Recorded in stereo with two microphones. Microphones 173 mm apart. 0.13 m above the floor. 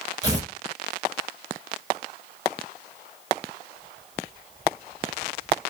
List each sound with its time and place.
0.2 s tearing paper: 20° right (ahead or behind), 0.9 m